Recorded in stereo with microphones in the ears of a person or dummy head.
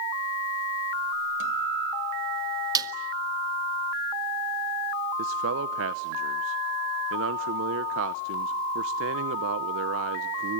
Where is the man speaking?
70° right (ahead or behind), 0.7 m.